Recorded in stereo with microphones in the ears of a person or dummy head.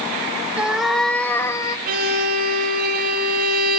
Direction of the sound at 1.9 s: 45° right (ahead or behind).